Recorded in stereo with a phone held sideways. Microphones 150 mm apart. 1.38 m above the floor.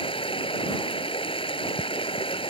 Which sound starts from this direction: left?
Running water, at 0.0 s.